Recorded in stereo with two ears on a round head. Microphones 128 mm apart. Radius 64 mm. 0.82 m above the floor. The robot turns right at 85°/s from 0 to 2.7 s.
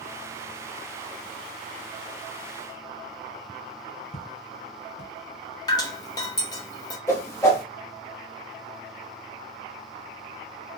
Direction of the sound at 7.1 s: 20° left (ahead or behind).